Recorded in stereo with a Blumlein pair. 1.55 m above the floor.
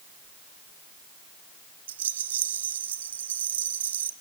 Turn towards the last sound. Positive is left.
turn(degrees=-65)